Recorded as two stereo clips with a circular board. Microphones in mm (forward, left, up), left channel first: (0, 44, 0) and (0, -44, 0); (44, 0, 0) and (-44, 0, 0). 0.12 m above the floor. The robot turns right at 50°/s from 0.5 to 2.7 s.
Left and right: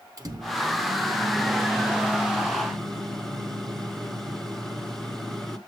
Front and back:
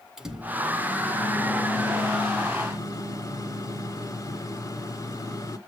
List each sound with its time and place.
0.2 s a microwave: 100° right, 1.6 m; by 5.6 s 10° left, 1.6 m